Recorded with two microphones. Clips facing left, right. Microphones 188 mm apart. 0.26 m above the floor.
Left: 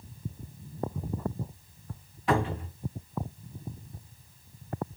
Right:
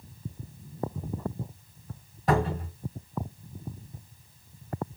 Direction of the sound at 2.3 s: 45° right (ahead or behind).